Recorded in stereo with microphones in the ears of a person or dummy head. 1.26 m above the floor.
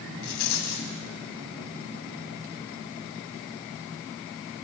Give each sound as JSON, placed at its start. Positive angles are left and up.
{"t": 0.2, "sound": "a rattle", "side_deg": 50, "distance_m": 2.0}